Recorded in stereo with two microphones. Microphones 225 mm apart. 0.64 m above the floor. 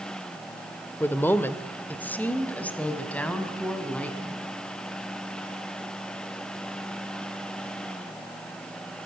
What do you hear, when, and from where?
1.0 s a woman speaking: 10° left (ahead or behind), 1.5 m; by 4.4 s 5° left (ahead or behind), 5 m